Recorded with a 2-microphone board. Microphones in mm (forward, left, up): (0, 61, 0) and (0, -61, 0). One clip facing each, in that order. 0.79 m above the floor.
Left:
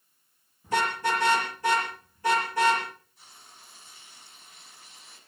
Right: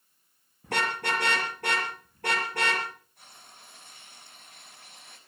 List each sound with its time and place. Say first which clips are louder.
0.6 s a car horn: left 3 dB; 65° right (ahead or behind), 6.5 m
3.2 s frying: right 1 dB; 60° right (ahead or behind), 4.5 m